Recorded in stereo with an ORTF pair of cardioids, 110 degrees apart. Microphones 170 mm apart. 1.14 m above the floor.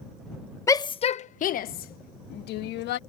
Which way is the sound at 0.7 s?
15° left.